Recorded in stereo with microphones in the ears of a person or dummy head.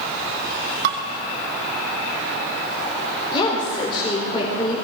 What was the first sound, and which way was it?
Dishes clattering, 55° right (ahead or behind).